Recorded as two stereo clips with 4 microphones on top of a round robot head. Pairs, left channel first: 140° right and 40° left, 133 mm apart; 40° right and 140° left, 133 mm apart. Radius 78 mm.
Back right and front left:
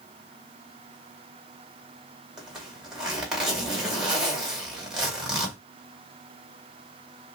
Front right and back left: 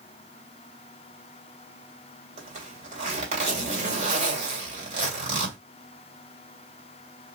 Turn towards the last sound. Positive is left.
turn(degrees=125)